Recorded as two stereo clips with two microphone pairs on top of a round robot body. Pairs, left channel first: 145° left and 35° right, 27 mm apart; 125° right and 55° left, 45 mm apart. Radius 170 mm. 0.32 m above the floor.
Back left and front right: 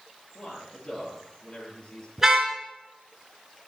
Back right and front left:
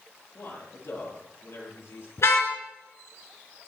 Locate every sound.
0.3 s a man speaking: 150° right, 8.5 m
2.2 s a car horn: 105° right, 4 m